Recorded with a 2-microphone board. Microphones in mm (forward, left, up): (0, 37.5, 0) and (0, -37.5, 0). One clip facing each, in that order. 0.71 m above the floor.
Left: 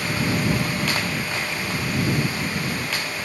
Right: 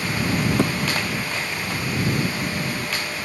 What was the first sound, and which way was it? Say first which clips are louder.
A thud: right 5 dB; 75° right (ahead or behind).